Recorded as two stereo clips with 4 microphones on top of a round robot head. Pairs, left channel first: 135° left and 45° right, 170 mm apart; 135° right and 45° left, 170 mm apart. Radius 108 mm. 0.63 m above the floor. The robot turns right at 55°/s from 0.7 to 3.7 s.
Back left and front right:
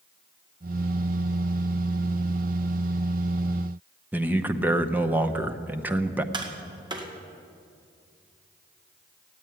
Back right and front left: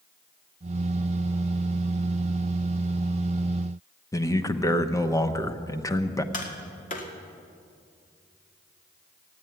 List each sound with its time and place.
4.1 s a man speaking: 105° right, 0.9 m
6.3 s tapping: 105° right, 1.9 m